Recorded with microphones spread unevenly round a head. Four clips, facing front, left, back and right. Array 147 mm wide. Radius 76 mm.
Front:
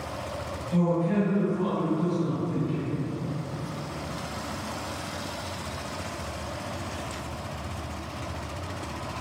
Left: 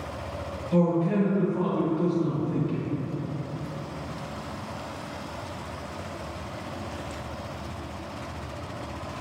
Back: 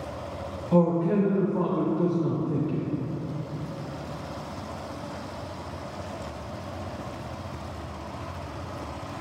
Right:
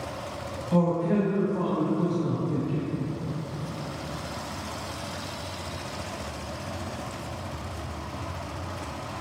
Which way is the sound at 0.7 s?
160° right.